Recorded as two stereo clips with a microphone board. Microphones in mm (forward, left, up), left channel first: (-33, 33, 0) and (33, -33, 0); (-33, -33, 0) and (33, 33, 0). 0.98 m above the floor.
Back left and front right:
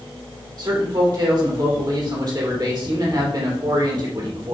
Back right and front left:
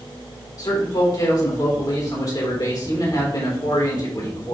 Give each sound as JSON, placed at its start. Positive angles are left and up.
{"t": 0.6, "sound": "a man speaking", "azimuth_deg": -90, "distance_m": 3.0}